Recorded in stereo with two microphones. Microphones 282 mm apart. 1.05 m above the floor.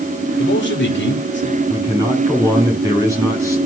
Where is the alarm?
I don't hear an alarm.